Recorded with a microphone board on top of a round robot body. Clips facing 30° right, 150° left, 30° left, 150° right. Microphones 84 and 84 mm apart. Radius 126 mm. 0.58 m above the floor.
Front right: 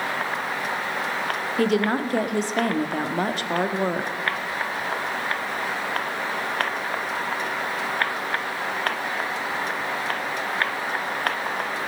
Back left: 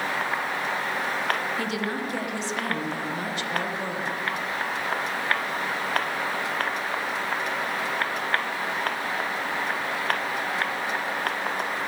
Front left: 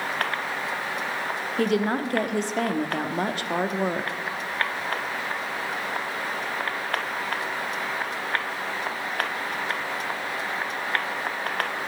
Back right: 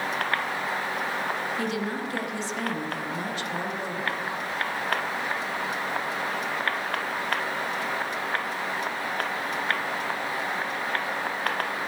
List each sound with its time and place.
1.6 s a woman speaking: 5° left, 1.4 m